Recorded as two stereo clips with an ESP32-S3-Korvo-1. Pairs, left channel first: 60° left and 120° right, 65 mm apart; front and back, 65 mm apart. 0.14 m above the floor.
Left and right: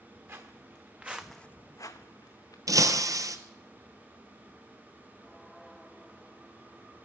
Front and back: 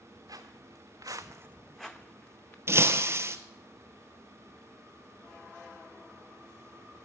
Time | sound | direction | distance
0.3 | footsteps | 170° right | 1.7 m
2.7 | breaking glass | 140° right | 0.8 m